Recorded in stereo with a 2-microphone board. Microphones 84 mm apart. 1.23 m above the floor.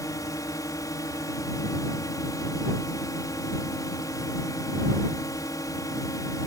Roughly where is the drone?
Left.